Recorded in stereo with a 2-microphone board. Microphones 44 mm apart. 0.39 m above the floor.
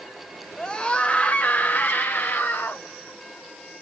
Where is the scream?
15° left (ahead or behind), 1.8 m; by 2.9 s 55° left (ahead or behind), 2.5 m.